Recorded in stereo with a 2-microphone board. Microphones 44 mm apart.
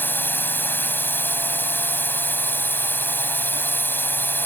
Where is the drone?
55° left (ahead or behind).